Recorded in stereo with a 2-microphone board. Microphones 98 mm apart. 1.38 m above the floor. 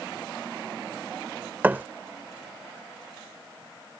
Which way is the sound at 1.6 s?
20° right (ahead or behind).